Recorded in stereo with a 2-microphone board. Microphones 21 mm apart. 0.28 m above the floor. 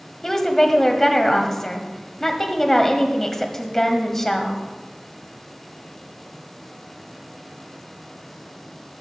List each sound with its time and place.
0.2 s a woman speaking: 15° left (ahead or behind), 1.5 m